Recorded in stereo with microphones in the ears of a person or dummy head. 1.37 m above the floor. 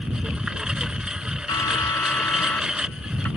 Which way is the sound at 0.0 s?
5° right (ahead or behind).